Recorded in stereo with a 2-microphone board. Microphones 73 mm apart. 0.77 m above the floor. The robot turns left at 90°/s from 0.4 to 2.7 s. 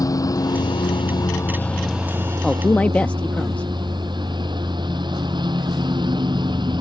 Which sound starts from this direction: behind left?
A lawn mower, at 0.0 s.